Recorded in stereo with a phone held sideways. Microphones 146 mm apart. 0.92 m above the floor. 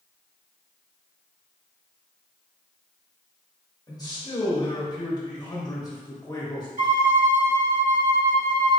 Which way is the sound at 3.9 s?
25° left (ahead or behind).